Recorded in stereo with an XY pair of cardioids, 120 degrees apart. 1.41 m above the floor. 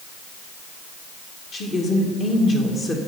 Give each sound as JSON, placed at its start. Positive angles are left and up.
{"t": 1.5, "sound": "a woman speaking", "azimuth_deg": 40, "distance_m": 1.9}